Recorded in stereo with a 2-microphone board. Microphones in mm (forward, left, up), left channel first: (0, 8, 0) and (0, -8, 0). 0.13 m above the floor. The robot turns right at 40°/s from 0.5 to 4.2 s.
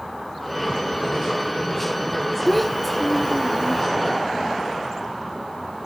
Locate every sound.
2.5 s a child speaking: 5° left (ahead or behind), 0.7 m; by 3.8 s 15° right (ahead or behind), 0.7 m